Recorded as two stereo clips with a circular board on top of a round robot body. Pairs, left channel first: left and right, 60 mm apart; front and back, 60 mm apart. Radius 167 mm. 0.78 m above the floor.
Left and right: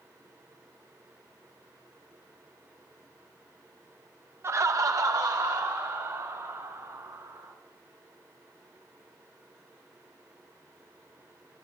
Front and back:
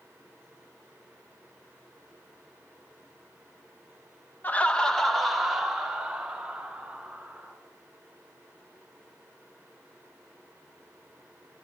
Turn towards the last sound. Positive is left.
turn(degrees=-105)